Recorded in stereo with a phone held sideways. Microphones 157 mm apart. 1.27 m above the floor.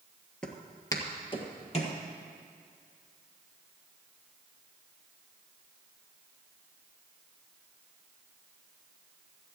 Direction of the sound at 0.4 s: 5° left (ahead or behind).